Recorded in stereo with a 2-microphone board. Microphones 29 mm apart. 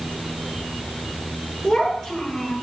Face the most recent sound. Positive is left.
turn(degrees=15)  # may be behind; listen again after turning